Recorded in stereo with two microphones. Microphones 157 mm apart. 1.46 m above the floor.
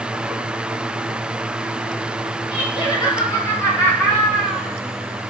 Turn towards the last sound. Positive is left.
turn(degrees=-5)  # may be behind; listen again after turning